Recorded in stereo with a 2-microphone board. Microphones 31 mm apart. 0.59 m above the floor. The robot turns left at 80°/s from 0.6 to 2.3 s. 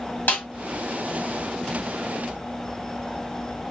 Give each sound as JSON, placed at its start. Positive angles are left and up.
{"t": 0.3, "sound": "a snare drum", "side_deg": 65, "distance_m": 1.6}